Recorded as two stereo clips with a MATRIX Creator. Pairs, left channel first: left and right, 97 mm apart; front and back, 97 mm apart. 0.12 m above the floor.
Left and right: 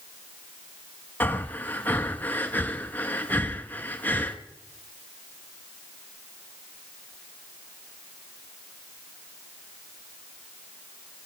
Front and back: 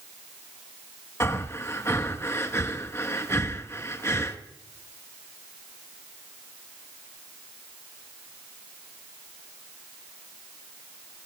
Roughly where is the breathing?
Ahead left.